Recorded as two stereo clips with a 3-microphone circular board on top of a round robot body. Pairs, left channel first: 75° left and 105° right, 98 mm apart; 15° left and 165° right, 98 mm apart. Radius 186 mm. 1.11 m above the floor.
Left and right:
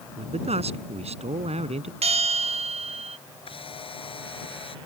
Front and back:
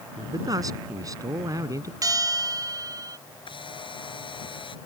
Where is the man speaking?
110° right; by 1.9 s 105° right.